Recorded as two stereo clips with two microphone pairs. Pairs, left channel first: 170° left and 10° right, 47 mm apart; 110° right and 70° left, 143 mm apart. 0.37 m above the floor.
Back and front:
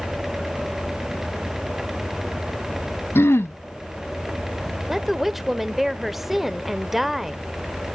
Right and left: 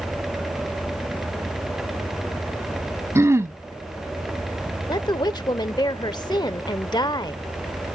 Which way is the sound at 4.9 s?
90° right.